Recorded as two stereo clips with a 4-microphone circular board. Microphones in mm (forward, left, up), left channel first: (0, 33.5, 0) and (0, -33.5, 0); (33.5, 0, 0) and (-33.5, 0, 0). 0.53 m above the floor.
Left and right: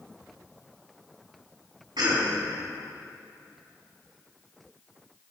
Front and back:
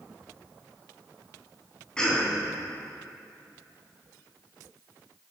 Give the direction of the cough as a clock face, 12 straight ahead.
3 o'clock.